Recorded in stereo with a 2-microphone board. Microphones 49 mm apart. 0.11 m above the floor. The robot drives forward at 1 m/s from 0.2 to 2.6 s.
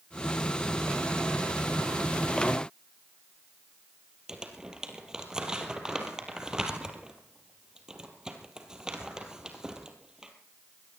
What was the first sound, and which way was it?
Crumpling, 15° right (ahead or behind).